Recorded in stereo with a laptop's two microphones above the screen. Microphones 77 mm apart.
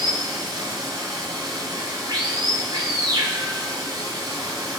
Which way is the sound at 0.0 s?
75° right (ahead or behind).